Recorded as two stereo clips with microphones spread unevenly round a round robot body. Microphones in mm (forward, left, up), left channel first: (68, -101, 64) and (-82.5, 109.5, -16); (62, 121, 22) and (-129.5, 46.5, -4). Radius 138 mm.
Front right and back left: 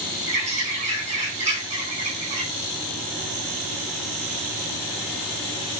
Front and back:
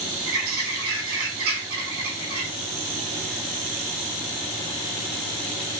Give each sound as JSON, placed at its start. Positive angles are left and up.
{"t": 0.3, "sound": "a bird", "azimuth_deg": -170, "distance_m": 5.0}